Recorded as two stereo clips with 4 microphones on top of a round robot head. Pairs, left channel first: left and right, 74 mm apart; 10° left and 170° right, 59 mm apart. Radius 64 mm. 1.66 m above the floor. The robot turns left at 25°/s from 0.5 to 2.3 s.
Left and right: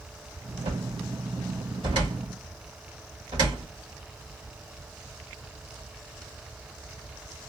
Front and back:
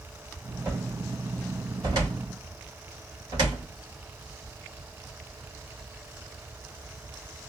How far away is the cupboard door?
About 2.5 m.